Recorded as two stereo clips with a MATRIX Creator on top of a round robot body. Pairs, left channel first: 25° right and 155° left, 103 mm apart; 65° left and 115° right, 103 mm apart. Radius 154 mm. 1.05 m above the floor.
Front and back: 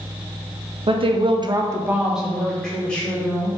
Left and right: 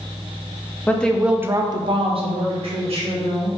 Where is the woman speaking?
140° left, 0.7 m; by 3.5 s 100° right, 1.5 m.